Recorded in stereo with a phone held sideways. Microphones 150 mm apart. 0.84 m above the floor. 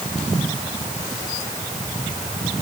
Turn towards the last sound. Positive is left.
No sound to turn to.